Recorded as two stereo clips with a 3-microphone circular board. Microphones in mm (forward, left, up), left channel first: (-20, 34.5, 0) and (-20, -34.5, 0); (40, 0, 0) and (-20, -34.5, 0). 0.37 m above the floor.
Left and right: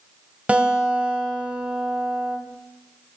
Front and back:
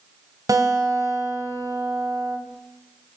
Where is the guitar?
160° right, 2 m.